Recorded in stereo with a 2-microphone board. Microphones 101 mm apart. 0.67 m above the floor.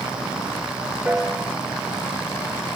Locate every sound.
1.1 s a piano: 15° right (ahead or behind)